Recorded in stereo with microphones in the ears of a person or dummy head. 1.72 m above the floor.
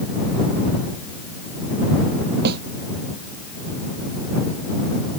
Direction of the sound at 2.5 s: 55° right (ahead or behind).